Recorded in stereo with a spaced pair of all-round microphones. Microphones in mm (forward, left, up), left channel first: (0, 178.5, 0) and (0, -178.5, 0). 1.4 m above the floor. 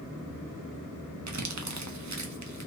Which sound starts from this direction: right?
Crumpling, at 1.3 s.